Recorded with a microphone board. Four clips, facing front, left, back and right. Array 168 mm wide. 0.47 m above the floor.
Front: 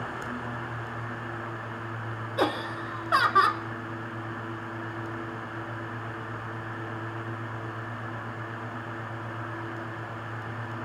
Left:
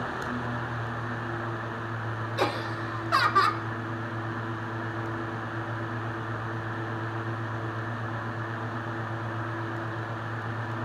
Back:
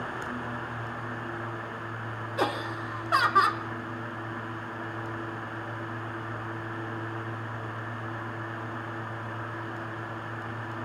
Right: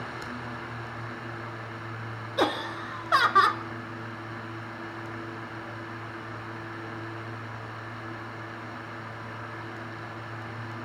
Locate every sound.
2.4 s laughter: 65° right, 0.8 m